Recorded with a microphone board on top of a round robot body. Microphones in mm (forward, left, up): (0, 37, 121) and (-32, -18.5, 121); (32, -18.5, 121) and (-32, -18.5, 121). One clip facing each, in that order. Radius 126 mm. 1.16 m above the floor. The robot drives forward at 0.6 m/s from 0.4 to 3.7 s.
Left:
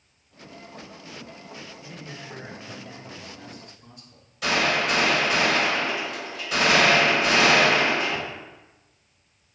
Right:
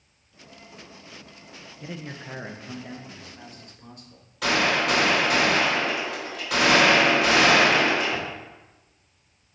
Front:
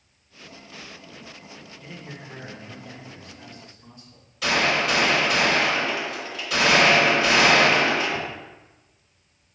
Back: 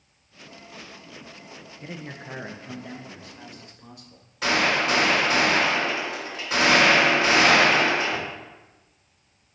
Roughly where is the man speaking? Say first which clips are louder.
Right 3 dB, back 4 dB; behind right.